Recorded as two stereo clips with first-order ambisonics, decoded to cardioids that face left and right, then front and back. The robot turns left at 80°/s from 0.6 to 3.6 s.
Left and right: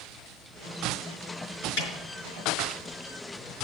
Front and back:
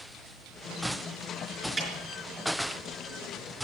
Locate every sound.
1.8 s a snare drum: 100° left, 4.5 m; by 1.9 s 85° left, 4.5 m